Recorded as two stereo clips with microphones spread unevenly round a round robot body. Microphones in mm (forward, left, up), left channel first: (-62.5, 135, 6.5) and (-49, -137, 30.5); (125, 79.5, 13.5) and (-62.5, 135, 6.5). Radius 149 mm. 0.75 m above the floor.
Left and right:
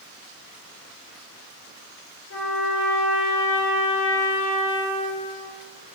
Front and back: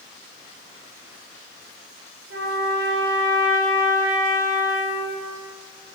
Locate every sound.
2.3 s a trumpet: 140° left, 9.5 m